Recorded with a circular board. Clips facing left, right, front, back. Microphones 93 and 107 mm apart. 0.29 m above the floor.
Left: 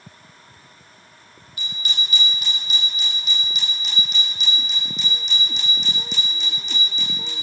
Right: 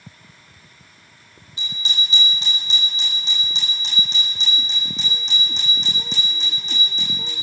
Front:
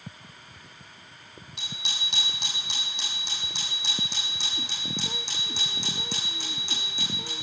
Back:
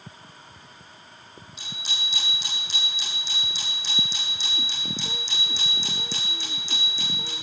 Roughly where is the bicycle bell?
Ahead right.